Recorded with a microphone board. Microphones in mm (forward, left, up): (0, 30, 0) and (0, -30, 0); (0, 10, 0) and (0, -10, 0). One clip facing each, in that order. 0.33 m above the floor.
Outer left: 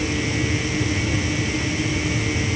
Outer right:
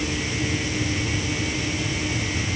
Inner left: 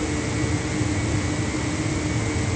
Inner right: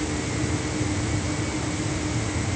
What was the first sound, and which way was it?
Only background noise.